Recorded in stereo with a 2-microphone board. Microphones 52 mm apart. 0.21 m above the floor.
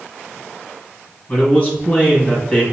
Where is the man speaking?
25° left (ahead or behind), 1.6 m.